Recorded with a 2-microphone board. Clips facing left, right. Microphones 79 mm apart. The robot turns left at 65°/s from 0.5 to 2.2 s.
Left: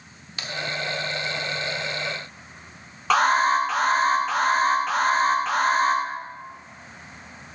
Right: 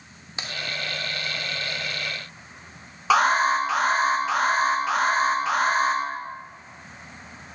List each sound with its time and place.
0.4 s a crack: 25° right (ahead or behind), 1.3 m
3.1 s an alarm: 5° right (ahead or behind), 1.6 m